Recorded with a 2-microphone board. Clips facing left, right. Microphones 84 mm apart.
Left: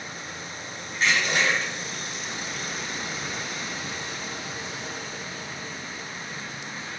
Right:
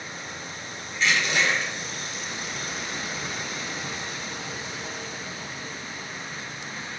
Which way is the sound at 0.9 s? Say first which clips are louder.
Even; 40° left (ahead or behind).